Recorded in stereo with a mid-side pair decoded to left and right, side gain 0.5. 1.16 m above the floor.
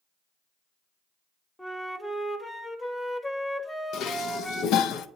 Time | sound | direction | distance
1.6 | a flute | 10° left | 1.0 m
3.9 | dishes clattering | 65° left | 0.6 m